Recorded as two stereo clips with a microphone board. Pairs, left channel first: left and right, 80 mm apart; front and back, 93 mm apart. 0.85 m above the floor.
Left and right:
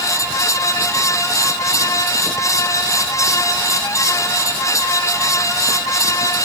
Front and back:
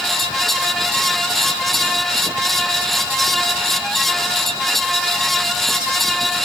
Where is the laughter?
No laughter in this recording.